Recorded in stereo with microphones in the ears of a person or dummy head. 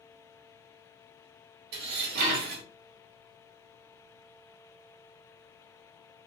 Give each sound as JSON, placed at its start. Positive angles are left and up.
{"t": 1.7, "sound": "dishes clattering", "side_deg": -50, "distance_m": 1.7}